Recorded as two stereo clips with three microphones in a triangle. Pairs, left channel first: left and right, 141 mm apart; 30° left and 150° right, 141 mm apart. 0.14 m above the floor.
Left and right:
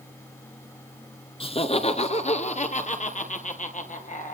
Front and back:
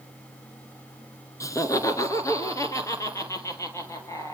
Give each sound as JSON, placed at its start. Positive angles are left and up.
{"t": 1.4, "sound": "laughter", "azimuth_deg": 85, "distance_m": 1.6}